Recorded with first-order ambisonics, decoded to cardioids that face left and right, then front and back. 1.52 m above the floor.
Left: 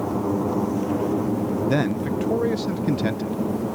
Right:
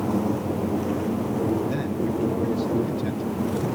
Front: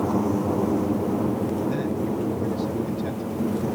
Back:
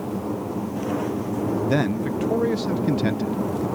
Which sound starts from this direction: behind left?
A man speaking, at 1.7 s.